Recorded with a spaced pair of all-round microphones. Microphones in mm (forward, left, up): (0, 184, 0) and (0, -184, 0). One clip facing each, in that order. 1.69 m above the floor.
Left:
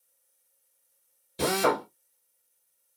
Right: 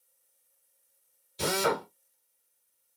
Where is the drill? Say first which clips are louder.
Left 3 dB; 70° left (ahead or behind), 1.3 m.